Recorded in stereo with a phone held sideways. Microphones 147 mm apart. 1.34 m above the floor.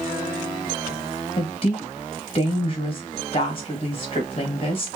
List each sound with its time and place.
1.4 s a woman speaking: 40° left (ahead or behind), 1.6 m